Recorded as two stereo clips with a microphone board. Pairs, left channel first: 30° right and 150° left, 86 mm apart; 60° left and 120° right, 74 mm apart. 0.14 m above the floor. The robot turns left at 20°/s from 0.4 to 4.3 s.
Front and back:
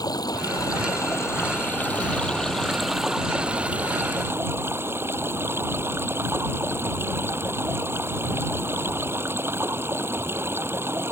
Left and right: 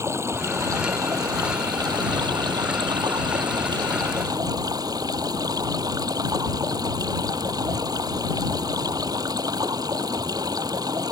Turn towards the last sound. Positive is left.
turn(degrees=-150)